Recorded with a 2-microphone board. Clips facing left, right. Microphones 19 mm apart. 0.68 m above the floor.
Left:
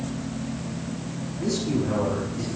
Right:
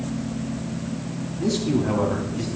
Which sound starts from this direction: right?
A man speaking, at 1.4 s.